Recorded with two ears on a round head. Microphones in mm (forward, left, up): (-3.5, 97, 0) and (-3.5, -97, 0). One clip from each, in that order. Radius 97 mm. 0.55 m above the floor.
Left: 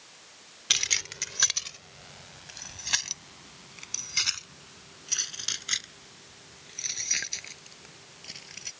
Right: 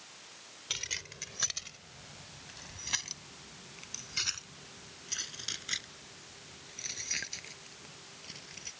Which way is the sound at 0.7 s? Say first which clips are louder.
Left 11 dB; 50° left (ahead or behind).